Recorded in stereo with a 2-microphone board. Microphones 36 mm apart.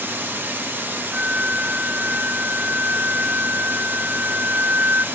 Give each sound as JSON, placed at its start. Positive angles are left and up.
{"t": 0.0, "sound": "running water", "side_deg": -60, "distance_m": 0.8}
{"t": 1.1, "sound": "a flute", "side_deg": -55, "distance_m": 0.5}